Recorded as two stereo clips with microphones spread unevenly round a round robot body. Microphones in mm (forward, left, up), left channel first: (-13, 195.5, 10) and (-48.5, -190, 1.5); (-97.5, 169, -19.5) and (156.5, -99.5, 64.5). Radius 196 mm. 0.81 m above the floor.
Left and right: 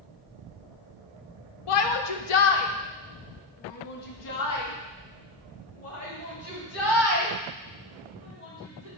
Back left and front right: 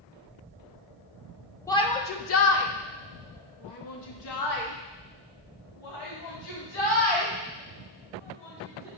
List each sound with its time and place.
1.7 s a shout: 60° left, 0.7 m; by 8.9 s 145° left, 4 m